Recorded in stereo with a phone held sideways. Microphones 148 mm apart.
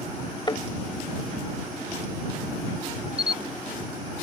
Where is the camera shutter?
45° right (ahead or behind).